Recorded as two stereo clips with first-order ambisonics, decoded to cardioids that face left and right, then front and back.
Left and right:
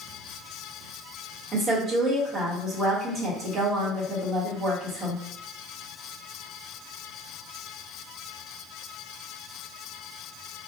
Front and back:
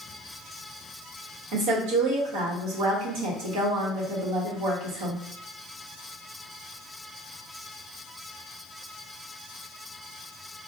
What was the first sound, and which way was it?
A woman speaking, 165° right.